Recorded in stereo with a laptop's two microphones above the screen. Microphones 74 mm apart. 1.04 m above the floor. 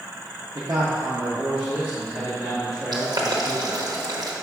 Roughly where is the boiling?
Right.